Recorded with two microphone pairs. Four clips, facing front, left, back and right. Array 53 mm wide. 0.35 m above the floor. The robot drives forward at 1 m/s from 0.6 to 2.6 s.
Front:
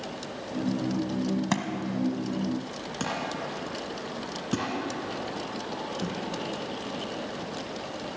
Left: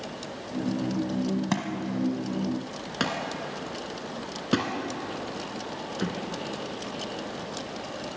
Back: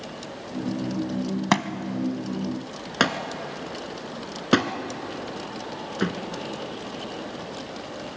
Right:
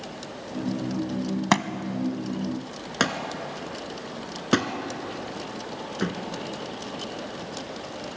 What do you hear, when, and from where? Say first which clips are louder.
1.5 s a thud: right 4 dB, back 4 dB; 130° right, 1.0 m; by 6.2 s 155° right, 1.9 m